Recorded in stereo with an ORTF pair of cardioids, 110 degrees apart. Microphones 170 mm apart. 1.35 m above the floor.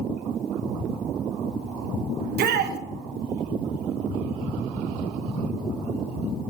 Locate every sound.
2.2 s a shout: 70° right, 1.1 m